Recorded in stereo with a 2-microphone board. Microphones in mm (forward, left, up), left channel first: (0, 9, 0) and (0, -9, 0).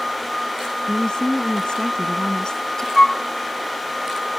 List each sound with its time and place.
0.9 s a woman speaking: 45° left (ahead or behind); by 2.9 s 30° left (ahead or behind)
3.0 s a flute: 40° left (ahead or behind)